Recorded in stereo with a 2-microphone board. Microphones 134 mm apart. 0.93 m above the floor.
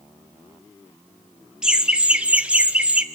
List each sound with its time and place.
1.6 s laughter: 5° right (ahead or behind), 0.5 m; by 3.0 s 10° right (ahead or behind), 0.7 m